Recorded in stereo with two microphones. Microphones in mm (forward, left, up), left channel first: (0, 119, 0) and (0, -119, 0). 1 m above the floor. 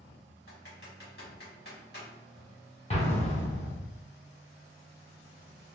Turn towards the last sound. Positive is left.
turn(degrees=30)  # may be behind; listen again after turning